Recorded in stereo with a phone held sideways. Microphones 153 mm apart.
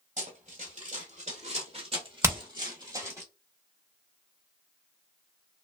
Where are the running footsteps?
55° right (ahead or behind), 1.4 m; by 3.2 s 20° right (ahead or behind), 1.6 m.